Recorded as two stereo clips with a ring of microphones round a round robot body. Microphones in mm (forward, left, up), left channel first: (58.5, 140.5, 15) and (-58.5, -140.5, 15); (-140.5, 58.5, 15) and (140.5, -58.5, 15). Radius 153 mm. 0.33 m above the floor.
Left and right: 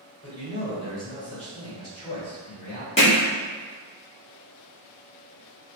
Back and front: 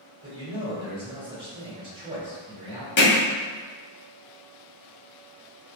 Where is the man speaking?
35° left, 1.5 m.